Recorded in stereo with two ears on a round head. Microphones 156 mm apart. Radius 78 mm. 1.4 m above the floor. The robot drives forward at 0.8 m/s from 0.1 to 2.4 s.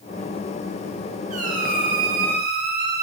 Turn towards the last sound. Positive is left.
turn(degrees=-60)  # may be behind; listen again after turning